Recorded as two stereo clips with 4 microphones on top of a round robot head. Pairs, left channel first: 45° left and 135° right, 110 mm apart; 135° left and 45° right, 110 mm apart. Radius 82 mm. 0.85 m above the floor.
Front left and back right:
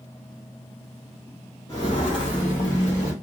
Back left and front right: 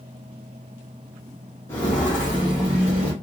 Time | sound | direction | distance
1.7 | footsteps | 80° left | 0.9 m